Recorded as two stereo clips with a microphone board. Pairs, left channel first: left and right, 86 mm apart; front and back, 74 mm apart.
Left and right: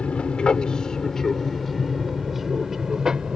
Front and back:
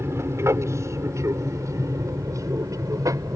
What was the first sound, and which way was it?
An aircraft, 160° left.